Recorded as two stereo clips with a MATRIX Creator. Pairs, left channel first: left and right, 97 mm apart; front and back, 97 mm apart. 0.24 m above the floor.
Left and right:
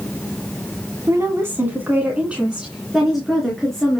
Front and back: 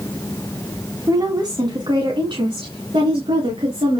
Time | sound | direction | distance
1.1 | a woman speaking | 140° right | 1.8 m